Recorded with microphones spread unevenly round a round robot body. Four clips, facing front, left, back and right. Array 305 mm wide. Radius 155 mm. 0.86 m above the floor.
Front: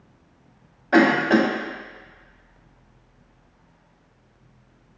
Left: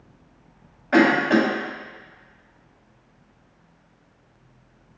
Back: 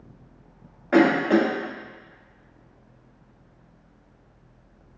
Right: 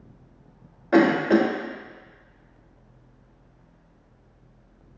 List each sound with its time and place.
0.9 s a cough: 110° right, 0.9 m